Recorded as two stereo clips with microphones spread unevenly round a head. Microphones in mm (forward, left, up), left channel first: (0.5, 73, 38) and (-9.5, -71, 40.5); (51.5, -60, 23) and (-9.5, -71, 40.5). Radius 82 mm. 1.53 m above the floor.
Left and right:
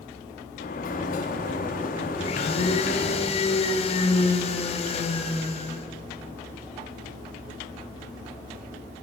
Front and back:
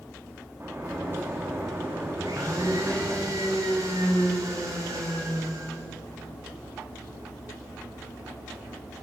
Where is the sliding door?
120° left, 2 m.